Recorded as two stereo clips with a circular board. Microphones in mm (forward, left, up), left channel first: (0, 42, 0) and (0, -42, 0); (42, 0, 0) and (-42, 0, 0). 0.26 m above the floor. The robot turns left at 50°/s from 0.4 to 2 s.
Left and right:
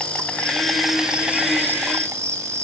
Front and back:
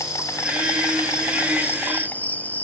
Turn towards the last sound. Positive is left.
turn(degrees=-60)